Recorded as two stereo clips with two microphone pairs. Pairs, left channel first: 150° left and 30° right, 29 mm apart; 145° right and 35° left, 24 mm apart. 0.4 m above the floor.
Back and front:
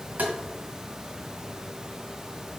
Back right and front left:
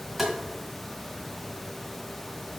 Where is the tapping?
45° right, 2 m.